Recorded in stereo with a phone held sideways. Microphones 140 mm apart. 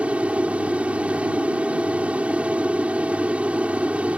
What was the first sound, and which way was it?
An aircraft, 10° right (ahead or behind).